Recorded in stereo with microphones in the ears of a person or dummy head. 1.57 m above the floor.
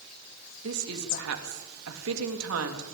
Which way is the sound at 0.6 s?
80° right.